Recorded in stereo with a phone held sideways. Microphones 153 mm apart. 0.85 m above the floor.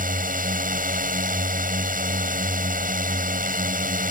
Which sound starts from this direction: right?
A drone, at 0.0 s.